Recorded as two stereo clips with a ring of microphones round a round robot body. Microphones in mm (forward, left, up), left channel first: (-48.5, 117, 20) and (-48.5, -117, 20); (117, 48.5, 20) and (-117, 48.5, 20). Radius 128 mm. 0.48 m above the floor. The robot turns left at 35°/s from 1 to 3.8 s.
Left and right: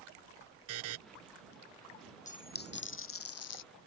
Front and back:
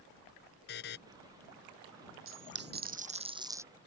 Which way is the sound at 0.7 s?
55° right.